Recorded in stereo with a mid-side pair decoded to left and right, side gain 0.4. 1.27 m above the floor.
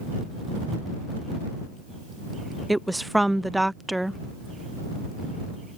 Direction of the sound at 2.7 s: 5° right.